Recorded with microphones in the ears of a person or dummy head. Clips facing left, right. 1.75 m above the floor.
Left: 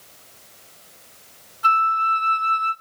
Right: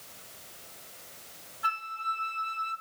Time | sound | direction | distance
1.6 | a flute | 65° left (ahead or behind) | 2.5 m